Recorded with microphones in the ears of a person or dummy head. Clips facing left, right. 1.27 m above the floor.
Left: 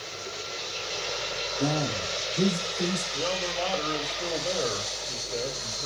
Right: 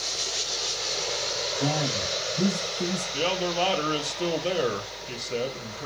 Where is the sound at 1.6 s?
35° left (ahead or behind), 2.5 m; by 3.0 s 25° left (ahead or behind), 3.5 m.